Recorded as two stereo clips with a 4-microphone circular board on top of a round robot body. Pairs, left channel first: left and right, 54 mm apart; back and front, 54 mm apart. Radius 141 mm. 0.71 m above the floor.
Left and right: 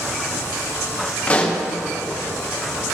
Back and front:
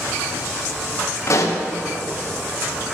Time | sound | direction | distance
1.3 | a pop | 160° left | 1.9 m